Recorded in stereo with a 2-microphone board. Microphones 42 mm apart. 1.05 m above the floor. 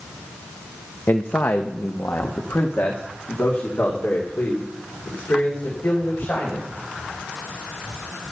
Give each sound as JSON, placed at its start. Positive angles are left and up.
{"t": 1.1, "sound": "a man speaking", "side_deg": 55, "distance_m": 0.8}